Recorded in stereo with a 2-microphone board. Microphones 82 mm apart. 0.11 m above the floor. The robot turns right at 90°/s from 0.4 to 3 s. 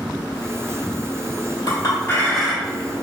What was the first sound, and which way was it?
A clink, 110° left.